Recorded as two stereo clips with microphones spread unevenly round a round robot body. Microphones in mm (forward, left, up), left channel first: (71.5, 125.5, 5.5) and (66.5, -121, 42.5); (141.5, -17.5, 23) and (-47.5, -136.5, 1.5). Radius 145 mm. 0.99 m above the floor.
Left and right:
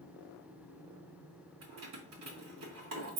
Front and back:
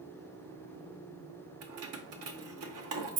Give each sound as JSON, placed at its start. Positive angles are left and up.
{"t": 1.6, "sound": "keys jangling", "azimuth_deg": -140, "distance_m": 0.9}